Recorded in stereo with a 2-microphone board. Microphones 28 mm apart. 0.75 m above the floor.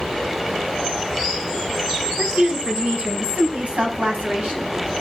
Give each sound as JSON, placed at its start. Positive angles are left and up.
{"t": 2.2, "sound": "a woman speaking", "side_deg": -70, "distance_m": 6.0}